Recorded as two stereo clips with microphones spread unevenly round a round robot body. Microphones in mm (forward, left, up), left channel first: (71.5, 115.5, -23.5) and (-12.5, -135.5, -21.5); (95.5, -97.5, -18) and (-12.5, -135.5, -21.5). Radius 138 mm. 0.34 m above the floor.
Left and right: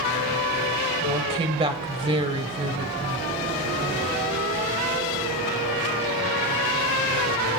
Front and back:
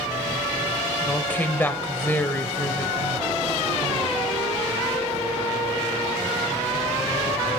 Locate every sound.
1.0 s a woman speaking: 50° right, 1.2 m